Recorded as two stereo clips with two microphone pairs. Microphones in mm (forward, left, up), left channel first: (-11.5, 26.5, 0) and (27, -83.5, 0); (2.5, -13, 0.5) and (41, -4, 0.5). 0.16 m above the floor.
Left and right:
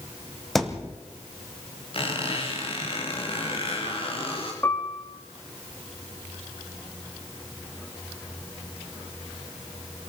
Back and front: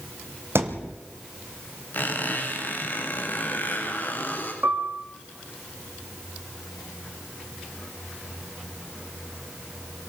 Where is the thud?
20° left, 2 m.